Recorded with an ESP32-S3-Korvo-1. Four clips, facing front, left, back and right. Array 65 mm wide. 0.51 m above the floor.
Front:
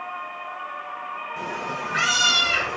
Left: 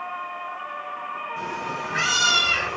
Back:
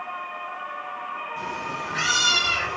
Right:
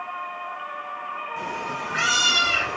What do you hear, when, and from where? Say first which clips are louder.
1.4 s a cat meowing: even, front 3 dB; 35° right, 8 m